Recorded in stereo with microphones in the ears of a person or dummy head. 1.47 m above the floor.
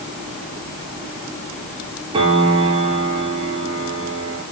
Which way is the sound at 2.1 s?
30° right (ahead or behind).